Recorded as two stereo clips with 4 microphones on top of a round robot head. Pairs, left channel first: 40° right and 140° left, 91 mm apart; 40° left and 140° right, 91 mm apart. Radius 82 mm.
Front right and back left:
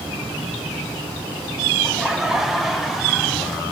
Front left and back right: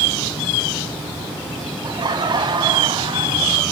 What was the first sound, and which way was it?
Laughter, 140° right.